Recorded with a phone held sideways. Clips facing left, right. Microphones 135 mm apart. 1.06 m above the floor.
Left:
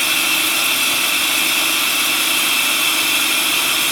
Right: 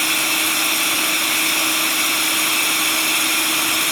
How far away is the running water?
About 1.9 m.